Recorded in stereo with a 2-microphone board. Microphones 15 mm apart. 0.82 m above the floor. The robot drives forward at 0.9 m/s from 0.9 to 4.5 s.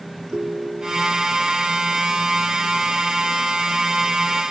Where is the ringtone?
85° right; by 1.3 s 80° right.